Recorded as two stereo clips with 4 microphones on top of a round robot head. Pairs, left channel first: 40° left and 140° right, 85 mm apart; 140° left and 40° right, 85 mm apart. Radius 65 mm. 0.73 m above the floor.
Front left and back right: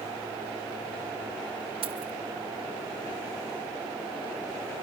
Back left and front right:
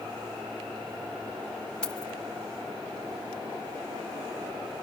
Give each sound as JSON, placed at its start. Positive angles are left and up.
{"t": 1.8, "sound": "keys jangling", "azimuth_deg": -140, "distance_m": 3.0}